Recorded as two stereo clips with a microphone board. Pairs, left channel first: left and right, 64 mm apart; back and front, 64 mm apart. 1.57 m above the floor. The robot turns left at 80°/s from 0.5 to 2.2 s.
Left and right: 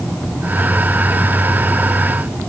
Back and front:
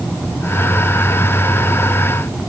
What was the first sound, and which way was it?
Only background noise.